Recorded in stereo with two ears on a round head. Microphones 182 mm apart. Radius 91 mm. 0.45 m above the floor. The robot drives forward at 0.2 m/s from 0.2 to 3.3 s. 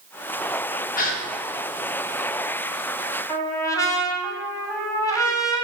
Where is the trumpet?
15° left (ahead or behind), 1.7 m.